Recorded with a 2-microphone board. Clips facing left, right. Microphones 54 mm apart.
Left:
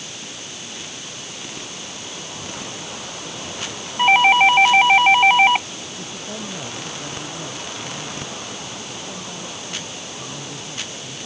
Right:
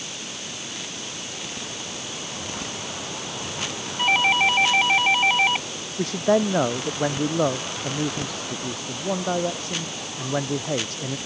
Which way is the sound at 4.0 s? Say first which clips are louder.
Left 7 dB; 35° left (ahead or behind).